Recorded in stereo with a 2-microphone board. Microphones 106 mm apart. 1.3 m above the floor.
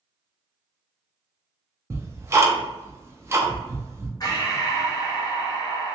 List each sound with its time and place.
1.9 s ticking: 25° right (ahead or behind), 0.5 m
4.2 s breathing: 40° left (ahead or behind), 1.0 m